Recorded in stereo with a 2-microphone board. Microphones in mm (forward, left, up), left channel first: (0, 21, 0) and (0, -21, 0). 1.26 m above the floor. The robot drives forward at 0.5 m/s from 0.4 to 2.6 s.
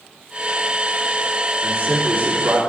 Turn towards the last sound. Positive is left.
turn(degrees=-65)  # may be behind; listen again after turning